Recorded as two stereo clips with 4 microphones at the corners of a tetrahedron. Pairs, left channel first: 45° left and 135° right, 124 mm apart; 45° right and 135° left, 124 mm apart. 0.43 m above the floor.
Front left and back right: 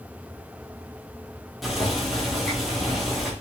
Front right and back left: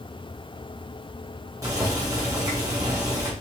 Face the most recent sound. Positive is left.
turn(degrees=140)